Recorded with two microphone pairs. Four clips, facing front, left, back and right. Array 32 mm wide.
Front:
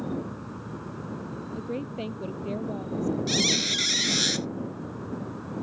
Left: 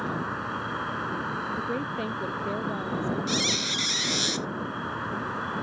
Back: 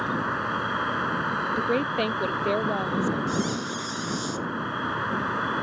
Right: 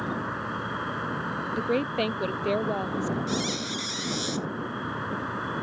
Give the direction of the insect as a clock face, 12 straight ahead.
6 o'clock.